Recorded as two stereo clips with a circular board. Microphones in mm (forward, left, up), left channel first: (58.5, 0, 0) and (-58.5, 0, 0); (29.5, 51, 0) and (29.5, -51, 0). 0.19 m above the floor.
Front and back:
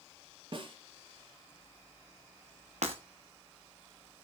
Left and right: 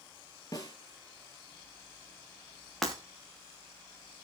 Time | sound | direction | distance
0.5 | a snare drum | 140° left | 4 m
2.8 | breaking glass | straight behind | 4 m